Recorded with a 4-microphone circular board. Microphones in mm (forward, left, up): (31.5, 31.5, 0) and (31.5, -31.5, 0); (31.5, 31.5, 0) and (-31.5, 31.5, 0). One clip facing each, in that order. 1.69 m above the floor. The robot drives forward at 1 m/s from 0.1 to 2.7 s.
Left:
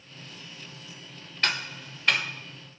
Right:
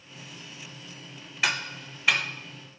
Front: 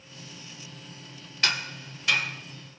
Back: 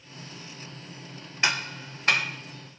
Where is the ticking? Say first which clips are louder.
Right 1 dB, back 2 dB; 155° right, 0.9 m; by 2.2 s 175° right, 1.4 m.